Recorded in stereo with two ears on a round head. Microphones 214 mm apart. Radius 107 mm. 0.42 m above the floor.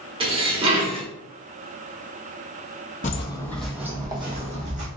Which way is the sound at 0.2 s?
25° right (ahead or behind).